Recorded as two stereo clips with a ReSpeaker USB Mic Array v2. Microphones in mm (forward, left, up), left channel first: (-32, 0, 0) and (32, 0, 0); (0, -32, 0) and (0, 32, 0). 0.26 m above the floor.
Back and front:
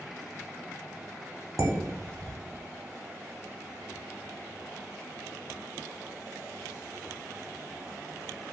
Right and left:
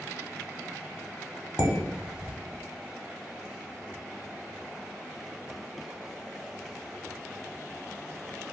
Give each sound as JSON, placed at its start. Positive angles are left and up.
{"t": 1.6, "sound": "dishes clattering", "azimuth_deg": 20, "distance_m": 1.1}